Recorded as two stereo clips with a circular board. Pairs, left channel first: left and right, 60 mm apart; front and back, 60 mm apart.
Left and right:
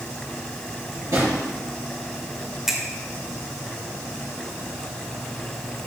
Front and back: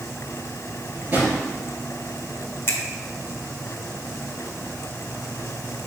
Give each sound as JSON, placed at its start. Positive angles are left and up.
{"t": 0.9, "sound": "a drawer", "azimuth_deg": -120, "distance_m": 3.5}
{"t": 2.7, "sound": "a finger snap", "azimuth_deg": -15, "distance_m": 1.3}